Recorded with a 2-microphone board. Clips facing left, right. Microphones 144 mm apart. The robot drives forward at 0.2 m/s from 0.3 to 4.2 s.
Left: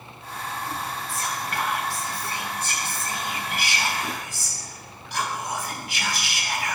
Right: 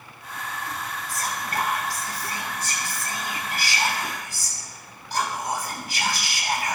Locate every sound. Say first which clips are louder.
1.1 s whispering: right 2 dB; 45° right (ahead or behind), 2.5 m; by 6.8 s 35° right (ahead or behind), 3 m